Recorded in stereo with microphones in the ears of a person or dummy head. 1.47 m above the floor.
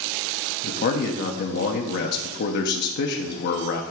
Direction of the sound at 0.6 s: 60° left (ahead or behind).